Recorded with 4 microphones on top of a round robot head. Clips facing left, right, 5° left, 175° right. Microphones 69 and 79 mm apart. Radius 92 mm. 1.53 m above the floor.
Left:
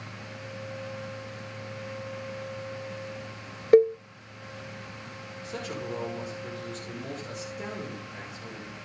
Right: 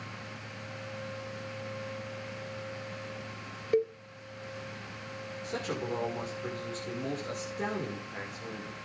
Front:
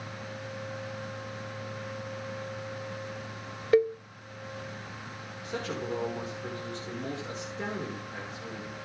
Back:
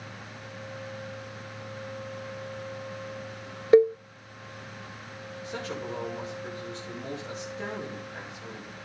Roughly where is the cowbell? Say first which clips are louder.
Left 11 dB, back 5 dB; behind left.